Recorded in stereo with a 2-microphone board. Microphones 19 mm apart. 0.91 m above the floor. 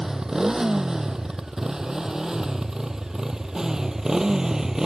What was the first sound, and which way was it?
A motorcycle, 30° right (ahead or behind).